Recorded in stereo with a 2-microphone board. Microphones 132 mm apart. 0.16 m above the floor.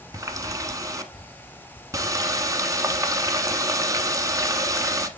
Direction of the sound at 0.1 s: 25° right (ahead or behind).